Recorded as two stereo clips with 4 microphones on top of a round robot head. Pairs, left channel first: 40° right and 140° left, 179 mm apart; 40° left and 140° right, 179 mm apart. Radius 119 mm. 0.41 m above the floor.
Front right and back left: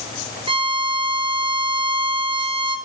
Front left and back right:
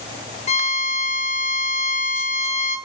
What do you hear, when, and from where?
0.5 s a violin: 85° left, 0.8 m